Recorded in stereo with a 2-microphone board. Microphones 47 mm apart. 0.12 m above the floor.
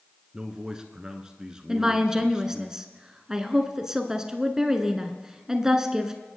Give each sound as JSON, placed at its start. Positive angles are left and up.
{"t": 0.3, "sound": "a man speaking", "side_deg": -15, "distance_m": 1.1}
{"t": 1.7, "sound": "a woman speaking", "side_deg": -15, "distance_m": 1.1}